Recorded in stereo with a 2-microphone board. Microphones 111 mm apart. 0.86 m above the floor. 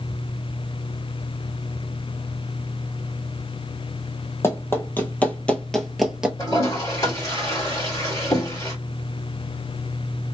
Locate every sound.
4.4 s running footsteps: 25° left (ahead or behind), 1.4 m; by 6.3 s 10° right (ahead or behind), 0.8 m
6.4 s a toilet flushing: 35° left (ahead or behind), 2.5 m